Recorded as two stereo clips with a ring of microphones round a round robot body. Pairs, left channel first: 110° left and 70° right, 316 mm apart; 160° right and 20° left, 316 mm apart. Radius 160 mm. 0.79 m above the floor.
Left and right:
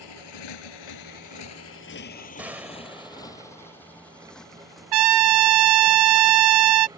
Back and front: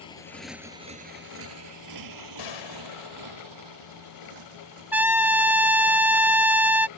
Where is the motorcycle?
130° left; by 7.0 s 15° left.